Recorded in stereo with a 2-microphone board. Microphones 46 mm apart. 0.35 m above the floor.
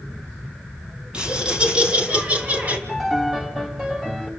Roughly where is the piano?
Centre.